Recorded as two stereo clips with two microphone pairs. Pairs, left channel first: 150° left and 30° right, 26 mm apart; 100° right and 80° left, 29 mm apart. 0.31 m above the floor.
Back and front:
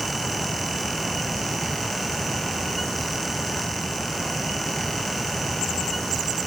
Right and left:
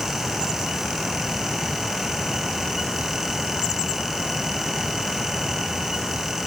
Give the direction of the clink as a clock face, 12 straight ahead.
No clink in this recording.